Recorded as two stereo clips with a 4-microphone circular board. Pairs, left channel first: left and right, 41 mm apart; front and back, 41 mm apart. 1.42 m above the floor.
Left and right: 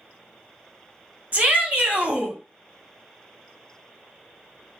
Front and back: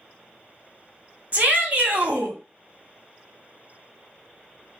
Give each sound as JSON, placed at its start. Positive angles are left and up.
{"t": 1.3, "sound": "a shout", "azimuth_deg": -135, "distance_m": 1.8}